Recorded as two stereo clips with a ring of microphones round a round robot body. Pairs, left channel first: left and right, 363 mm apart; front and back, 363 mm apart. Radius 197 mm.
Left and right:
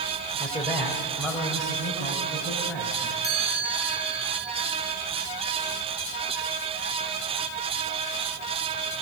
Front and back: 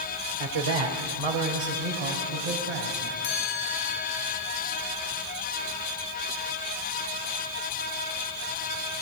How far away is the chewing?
No chewing in this recording.